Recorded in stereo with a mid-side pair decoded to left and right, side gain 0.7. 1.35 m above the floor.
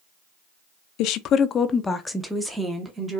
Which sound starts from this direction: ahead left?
A woman speaking, at 1.0 s.